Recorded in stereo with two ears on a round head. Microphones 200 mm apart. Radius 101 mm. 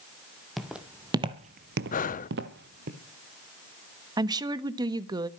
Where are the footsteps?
Centre (ahead or behind), 1.8 m; by 2.9 s 40° right (ahead or behind), 2 m.